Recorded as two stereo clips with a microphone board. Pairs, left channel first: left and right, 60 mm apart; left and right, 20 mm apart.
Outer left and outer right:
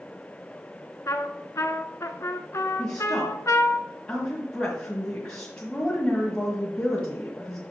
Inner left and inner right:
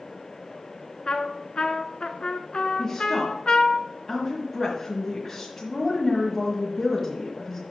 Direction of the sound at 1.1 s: 55° left (ahead or behind).